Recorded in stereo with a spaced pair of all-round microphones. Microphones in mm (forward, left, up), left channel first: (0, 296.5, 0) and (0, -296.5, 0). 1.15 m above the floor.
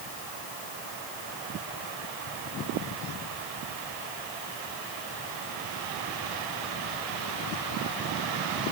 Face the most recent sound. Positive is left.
No sound to turn to.